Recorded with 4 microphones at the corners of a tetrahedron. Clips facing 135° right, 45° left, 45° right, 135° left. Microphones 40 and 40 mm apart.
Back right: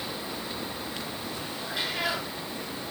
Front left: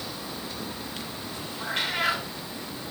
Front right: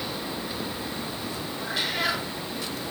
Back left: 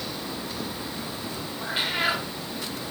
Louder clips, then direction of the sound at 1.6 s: Front left 4 dB, back left 2 dB; 75° left.